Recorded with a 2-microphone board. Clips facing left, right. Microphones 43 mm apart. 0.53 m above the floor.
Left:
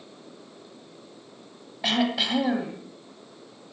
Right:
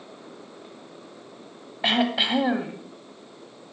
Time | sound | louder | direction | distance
1.8 | throat clearing | right 2 dB | 20° right (ahead or behind) | 1.4 m